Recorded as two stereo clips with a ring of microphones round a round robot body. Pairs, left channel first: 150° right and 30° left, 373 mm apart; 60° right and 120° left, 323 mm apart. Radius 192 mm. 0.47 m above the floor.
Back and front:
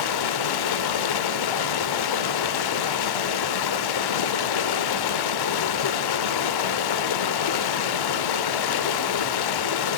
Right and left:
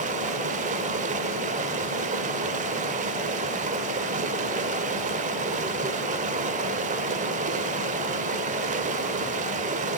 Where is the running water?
170° right, 0.9 m.